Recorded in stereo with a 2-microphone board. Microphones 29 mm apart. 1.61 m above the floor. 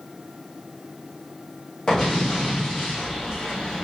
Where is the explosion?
15° left (ahead or behind), 1.9 m.